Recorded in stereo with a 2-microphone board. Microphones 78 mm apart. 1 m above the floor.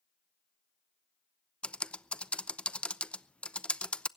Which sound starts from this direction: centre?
Typing on a keyboard, at 1.6 s.